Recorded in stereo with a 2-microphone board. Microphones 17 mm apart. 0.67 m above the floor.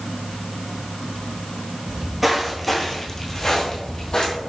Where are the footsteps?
25° right (ahead or behind), 1.0 m; by 4.3 s 40° left (ahead or behind), 1.4 m.